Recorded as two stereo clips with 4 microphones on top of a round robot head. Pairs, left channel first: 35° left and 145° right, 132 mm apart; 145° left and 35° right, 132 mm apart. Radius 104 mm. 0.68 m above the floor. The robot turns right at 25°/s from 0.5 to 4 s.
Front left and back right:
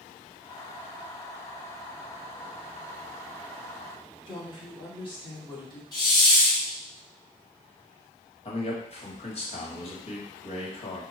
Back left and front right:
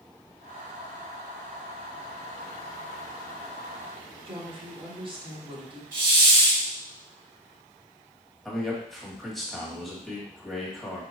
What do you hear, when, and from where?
4.3 s a woman speaking: straight ahead, 1.7 m
5.9 s a hiss: 25° right, 2 m
8.4 s a man speaking: 55° left, 1.5 m